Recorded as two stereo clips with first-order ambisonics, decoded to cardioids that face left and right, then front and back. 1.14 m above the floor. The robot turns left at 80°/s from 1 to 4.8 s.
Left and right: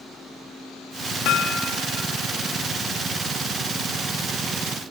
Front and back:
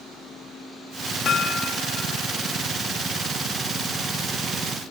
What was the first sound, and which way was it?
Hammering, 60° left.